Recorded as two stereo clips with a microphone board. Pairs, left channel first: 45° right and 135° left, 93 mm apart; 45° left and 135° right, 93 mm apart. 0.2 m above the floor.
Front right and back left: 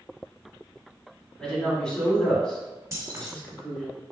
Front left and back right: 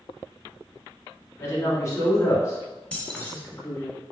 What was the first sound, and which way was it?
A woman speaking, 30° left.